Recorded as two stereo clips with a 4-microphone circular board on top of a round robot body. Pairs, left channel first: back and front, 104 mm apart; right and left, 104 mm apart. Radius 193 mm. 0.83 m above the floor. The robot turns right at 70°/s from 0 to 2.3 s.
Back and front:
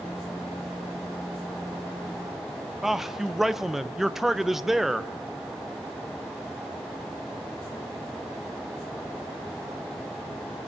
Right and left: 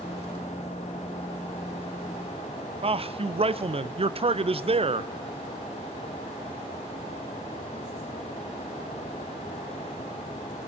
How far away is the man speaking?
About 0.6 m.